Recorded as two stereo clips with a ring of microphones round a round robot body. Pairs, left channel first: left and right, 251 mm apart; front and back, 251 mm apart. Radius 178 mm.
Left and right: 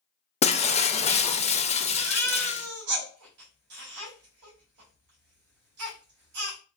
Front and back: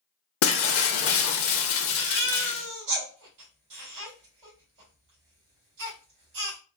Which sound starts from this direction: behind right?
A baby crying, at 1.9 s.